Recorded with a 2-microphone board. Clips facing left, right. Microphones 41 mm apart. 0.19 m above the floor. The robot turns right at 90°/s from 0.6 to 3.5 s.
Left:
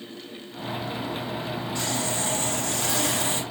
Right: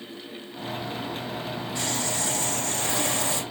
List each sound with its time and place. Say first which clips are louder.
1.8 s sawing: even; 10° right, 7 m; by 3.4 s 135° left, 7 m